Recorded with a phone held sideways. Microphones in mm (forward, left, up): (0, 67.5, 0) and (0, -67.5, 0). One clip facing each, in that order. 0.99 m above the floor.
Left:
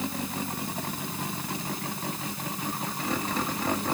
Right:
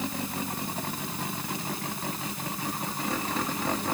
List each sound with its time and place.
Only background noise.